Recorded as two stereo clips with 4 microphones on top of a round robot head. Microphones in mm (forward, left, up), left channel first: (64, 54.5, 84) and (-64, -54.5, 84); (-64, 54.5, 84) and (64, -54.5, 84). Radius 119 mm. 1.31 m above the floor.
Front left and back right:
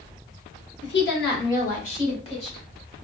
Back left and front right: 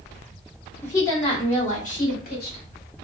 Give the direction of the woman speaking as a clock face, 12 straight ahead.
10 o'clock.